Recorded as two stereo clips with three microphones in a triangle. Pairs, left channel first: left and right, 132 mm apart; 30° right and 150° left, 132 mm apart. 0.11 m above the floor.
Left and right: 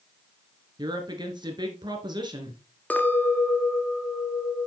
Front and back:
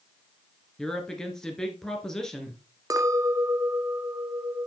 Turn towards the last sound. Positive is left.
turn(degrees=150)